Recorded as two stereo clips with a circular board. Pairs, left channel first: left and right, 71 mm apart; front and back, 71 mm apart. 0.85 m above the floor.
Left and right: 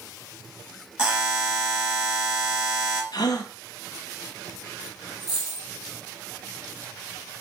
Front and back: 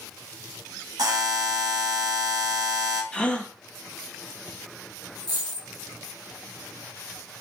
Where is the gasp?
75° left, 0.6 m.